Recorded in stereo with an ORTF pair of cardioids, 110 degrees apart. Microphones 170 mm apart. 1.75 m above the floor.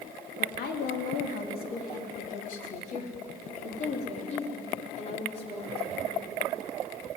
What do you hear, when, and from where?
0.4 s a woman speaking: 70° left, 3.5 m; by 6.0 s 35° left, 6 m